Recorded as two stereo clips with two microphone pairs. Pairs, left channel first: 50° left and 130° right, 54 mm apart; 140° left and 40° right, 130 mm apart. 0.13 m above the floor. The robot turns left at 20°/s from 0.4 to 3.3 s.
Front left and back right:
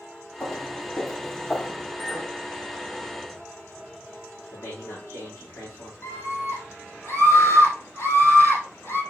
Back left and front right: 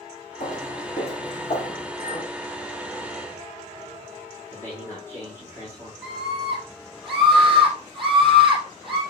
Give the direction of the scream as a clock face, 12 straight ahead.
10 o'clock.